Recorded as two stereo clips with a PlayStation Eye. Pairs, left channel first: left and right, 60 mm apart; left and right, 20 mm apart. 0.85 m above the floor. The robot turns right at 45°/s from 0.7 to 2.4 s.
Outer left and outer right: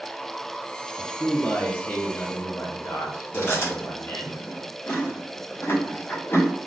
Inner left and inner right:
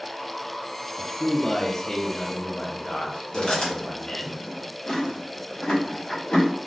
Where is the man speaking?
10° left, 0.7 m; by 4.3 s 75° left, 0.7 m.